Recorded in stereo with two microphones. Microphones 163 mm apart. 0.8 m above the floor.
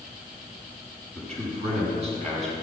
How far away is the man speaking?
About 5.5 m.